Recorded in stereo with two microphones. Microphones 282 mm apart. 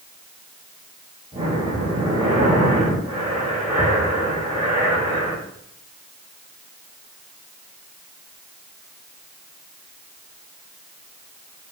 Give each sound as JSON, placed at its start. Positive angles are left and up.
{"t": 1.3, "sound": "breathing", "side_deg": -25, "distance_m": 5.5}